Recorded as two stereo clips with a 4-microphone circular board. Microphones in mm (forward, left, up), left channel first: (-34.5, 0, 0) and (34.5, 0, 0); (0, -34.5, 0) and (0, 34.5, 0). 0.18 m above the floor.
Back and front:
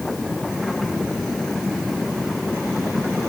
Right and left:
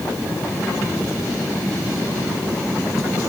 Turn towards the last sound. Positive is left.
No sound to turn to.